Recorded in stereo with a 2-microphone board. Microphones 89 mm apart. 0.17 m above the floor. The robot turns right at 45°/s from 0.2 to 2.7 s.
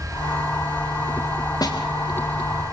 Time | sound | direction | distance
1.6 | a snare drum | 45° left (ahead or behind) | 5 m